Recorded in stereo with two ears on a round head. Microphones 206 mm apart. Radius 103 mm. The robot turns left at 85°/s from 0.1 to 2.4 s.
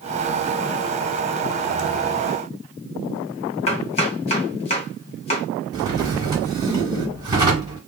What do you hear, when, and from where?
3.7 s chopping: 30° left (ahead or behind), 1.6 m
5.7 s a drawer: 20° right (ahead or behind), 1.3 m